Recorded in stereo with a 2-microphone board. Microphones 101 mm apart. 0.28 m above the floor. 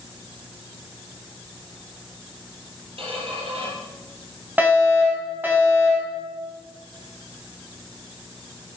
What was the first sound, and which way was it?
A squeak, 65° right (ahead or behind).